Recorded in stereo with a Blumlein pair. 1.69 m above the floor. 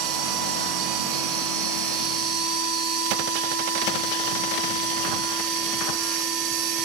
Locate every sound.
0.0 s a machine running: 40° right, 7.5 m